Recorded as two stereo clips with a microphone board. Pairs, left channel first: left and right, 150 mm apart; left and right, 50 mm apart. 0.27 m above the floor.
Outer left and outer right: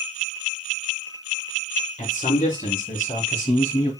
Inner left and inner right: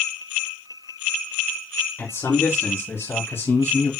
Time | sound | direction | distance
2.0 | a man speaking | 60° left (ahead or behind) | 3 m